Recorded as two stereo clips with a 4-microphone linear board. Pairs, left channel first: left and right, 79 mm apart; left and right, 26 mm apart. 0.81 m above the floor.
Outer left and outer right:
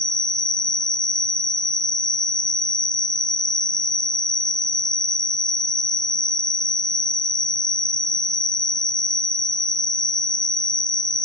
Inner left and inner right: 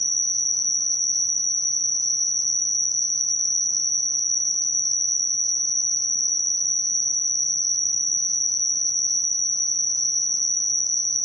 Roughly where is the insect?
Centre.